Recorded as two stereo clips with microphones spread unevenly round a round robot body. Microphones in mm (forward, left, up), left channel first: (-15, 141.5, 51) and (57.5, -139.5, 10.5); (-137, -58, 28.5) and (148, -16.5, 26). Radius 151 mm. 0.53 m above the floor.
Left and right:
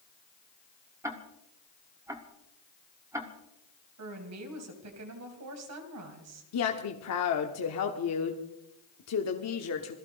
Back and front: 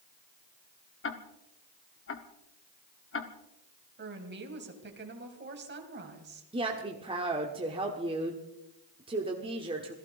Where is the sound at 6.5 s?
75° left, 1.3 m.